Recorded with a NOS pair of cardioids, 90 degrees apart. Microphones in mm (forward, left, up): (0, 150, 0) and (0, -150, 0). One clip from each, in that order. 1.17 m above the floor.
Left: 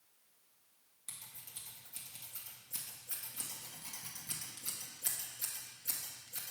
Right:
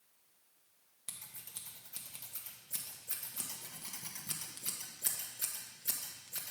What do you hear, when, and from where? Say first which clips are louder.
1.1 s scissors: right 1 dB; 30° right, 1.3 m